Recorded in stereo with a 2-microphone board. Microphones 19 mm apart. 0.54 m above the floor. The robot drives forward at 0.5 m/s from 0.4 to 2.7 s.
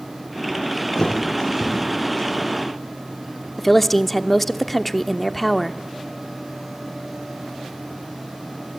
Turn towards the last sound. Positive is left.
turn(degrees=10)  # may be behind; listen again after turning